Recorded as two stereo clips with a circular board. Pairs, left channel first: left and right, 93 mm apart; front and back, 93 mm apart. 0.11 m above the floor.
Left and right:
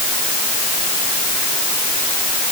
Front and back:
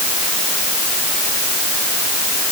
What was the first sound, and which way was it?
Only background noise.